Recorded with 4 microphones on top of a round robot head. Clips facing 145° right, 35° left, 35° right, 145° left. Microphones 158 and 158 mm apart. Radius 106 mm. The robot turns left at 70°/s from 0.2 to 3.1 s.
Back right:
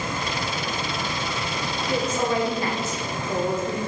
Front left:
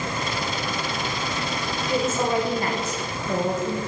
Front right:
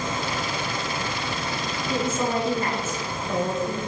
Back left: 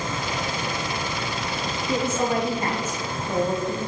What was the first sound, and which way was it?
A woman speaking, 135° left.